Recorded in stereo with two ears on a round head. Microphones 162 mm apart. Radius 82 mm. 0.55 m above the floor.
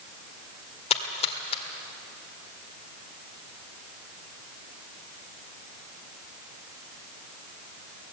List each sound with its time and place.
0.9 s a splash: 30° left (ahead or behind), 1.7 m